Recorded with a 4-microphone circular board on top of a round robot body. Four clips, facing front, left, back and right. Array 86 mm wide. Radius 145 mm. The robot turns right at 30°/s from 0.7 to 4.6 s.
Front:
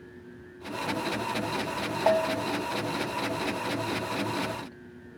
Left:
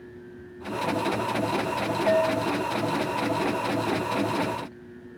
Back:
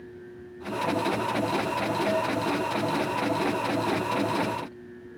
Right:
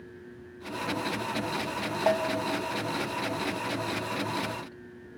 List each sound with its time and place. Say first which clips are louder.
2.1 s a bell: left 4 dB, front 1 dB; 35° right, 1.1 m; by 2.5 s 20° right, 1.1 m